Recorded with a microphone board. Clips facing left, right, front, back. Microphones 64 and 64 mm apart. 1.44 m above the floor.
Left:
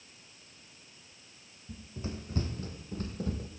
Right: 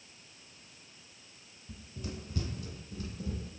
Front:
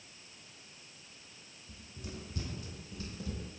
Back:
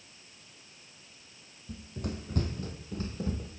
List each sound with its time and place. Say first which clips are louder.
1.7 s running footsteps: left 3 dB, back 9 dB; 155° left, 5 m; by 3.5 s 120° left, 4 m